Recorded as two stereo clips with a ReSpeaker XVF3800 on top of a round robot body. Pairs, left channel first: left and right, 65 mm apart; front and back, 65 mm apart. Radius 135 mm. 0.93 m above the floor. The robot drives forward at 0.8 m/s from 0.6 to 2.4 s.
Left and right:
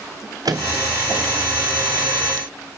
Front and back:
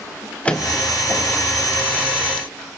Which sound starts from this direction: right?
A microwave, at 0.5 s.